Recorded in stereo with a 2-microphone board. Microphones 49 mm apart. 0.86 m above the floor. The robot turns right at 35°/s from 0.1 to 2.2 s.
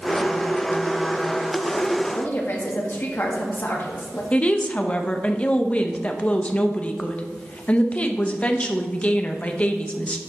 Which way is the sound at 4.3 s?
25° left (ahead or behind).